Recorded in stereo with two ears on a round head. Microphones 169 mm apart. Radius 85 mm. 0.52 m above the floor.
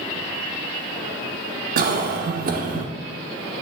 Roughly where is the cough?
Right.